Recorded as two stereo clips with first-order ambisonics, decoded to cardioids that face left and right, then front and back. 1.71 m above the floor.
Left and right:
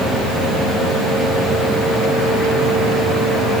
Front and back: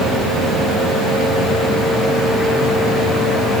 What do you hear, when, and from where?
Only background noise.